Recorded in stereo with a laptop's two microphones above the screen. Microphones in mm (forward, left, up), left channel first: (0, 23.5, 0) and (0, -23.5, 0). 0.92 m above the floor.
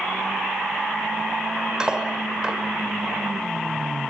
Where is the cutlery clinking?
15° right (ahead or behind), 2.0 m.